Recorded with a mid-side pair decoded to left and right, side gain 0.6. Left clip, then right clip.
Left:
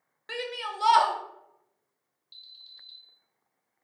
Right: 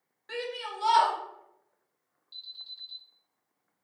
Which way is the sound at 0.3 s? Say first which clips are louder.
Left 2 dB; 40° left.